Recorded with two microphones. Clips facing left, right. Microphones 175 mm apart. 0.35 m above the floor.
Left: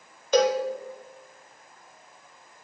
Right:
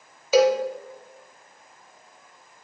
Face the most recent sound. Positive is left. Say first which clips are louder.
# right 3 dB
turn(degrees=-5)  # may be behind; listen again after turning